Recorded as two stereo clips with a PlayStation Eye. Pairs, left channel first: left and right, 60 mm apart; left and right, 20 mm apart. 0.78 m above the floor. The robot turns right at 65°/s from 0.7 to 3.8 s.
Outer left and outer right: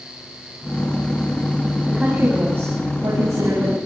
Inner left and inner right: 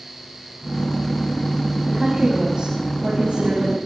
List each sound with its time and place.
1.9 s a woman speaking: straight behind, 6 m; by 3.8 s 55° right, 6 m